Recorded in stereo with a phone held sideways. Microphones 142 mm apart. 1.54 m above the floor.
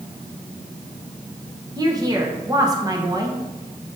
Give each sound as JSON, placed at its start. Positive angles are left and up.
{"t": 1.8, "sound": "a woman speaking", "side_deg": -25, "distance_m": 1.3}